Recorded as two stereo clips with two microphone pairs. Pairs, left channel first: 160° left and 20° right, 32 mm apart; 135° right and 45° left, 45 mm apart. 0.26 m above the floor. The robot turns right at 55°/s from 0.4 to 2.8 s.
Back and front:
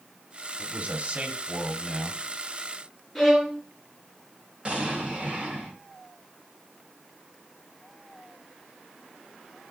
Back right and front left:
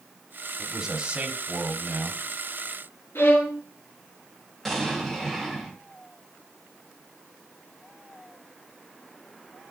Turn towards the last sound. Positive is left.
turn(degrees=-55)